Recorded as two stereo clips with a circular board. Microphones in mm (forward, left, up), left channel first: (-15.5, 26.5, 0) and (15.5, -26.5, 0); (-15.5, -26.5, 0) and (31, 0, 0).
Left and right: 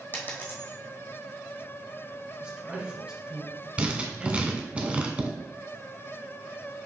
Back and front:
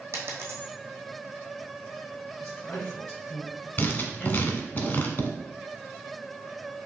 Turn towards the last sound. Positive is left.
turn(degrees=-115)